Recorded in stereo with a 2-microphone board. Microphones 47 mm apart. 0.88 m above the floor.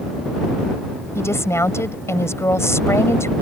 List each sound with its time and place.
1.1 s a woman speaking: 85° left